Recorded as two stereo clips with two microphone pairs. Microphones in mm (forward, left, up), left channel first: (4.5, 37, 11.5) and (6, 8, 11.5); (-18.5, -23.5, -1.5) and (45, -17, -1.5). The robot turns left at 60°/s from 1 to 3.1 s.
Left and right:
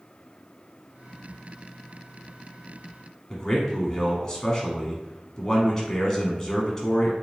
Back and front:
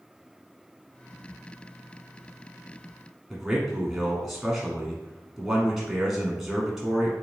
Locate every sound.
3.3 s a man speaking: 80° left, 1.0 m